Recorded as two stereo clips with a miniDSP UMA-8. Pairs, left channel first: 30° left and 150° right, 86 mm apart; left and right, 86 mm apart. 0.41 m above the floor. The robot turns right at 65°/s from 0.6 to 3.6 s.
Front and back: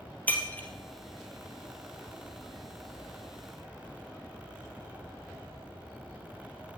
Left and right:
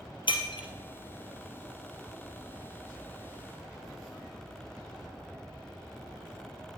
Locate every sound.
0.3 s breaking glass: 100° left, 2.5 m; by 0.7 s 105° left, 2.5 m